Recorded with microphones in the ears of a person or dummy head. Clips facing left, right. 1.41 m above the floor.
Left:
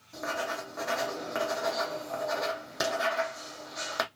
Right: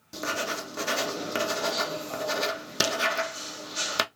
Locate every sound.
0.1 s writing: 40° right (ahead or behind), 0.6 m